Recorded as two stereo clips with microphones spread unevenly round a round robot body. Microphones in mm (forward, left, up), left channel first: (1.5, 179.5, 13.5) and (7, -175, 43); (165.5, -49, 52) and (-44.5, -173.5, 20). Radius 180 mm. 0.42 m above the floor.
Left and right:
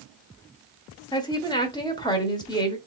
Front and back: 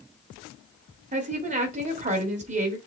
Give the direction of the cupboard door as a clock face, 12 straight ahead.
I don't hear a cupboard door.